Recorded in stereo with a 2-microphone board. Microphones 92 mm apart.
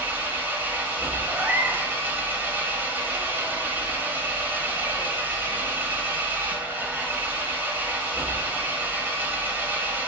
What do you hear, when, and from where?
0.0 s an engine running: 25° right (ahead or behind), 1.1 m
1.3 s a cat meowing: 25° right (ahead or behind), 0.8 m